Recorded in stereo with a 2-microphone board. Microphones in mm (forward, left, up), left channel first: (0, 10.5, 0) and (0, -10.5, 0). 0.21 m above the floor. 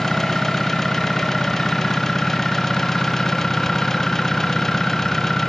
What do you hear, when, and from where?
0.0 s an engine running: 20° left (ahead or behind)